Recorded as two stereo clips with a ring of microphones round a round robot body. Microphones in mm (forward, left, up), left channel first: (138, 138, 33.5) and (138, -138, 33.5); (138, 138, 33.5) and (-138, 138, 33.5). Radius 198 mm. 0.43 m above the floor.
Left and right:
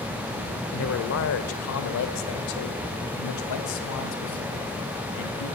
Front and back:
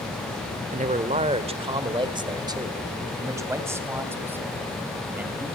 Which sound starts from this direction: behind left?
A man speaking, at 0.7 s.